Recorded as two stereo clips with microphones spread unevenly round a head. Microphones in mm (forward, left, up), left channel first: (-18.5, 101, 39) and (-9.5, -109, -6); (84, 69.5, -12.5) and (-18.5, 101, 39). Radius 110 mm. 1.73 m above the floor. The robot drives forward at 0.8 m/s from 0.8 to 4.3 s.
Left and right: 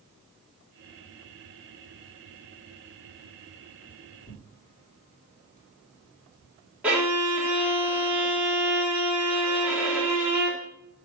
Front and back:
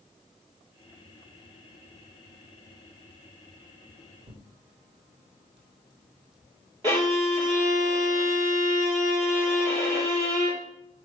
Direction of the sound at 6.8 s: Straight behind.